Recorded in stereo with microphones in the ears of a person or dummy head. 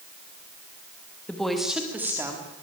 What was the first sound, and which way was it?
A woman speaking, 10° left (ahead or behind).